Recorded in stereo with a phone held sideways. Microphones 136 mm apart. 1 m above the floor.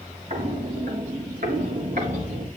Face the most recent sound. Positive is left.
turn(degrees=-80)